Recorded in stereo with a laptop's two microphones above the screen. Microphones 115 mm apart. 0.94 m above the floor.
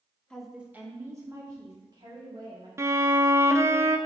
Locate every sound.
0.3 s a woman speaking: 10° left (ahead or behind), 1.0 m; by 2.7 s 45° right (ahead or behind), 3 m
2.8 s a violin: 25° right (ahead or behind), 0.6 m